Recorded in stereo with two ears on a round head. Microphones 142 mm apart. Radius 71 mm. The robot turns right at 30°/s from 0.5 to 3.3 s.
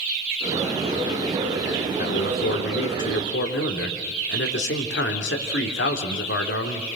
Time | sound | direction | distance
2.0 | a man speaking | 50° left | 3.5 m